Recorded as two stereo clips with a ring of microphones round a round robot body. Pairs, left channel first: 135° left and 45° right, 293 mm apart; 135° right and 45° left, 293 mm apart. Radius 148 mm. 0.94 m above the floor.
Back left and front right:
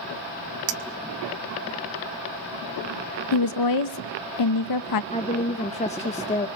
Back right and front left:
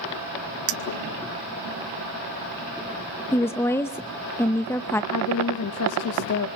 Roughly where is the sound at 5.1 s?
Behind.